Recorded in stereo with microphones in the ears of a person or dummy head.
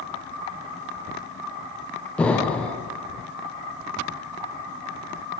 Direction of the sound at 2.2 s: 5° left (ahead or behind).